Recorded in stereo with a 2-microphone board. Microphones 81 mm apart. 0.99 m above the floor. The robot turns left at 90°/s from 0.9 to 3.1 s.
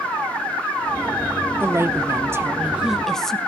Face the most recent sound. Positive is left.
turn(degrees=175)